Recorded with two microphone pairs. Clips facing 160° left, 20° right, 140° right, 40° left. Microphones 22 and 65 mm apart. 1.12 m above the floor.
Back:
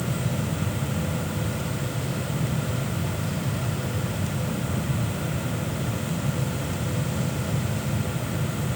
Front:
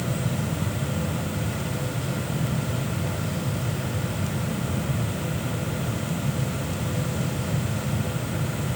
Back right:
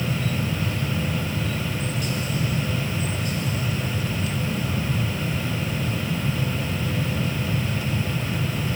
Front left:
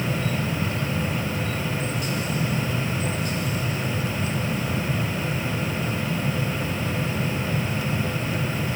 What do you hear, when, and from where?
Only background noise.